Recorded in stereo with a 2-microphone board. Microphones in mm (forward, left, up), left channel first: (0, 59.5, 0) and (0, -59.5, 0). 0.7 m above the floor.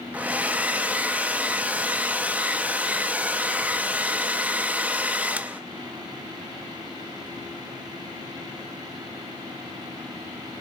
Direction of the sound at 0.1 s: 15° right (ahead or behind).